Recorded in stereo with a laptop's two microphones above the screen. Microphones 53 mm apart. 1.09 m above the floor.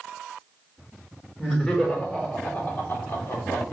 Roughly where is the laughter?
Centre.